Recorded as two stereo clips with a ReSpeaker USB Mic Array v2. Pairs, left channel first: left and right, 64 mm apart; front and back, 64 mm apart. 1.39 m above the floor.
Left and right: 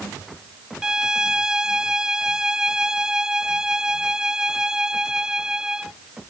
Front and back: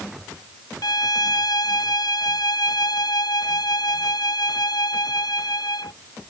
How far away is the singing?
No singing in this recording.